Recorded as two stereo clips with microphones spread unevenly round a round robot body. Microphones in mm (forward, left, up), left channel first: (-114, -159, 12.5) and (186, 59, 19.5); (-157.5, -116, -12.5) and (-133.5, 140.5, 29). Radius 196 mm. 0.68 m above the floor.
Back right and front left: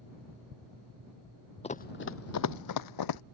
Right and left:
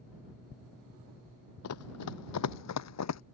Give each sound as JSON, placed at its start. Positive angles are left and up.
{"t": 1.6, "sound": "running footsteps", "azimuth_deg": -75}